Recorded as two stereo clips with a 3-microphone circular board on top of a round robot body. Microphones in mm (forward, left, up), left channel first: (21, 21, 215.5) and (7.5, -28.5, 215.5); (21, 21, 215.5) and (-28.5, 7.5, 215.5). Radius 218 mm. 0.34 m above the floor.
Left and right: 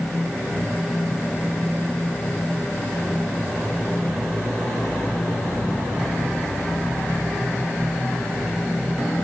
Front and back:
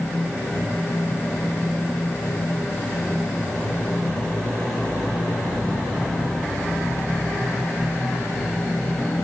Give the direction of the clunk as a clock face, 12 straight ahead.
I don't hear a clunk.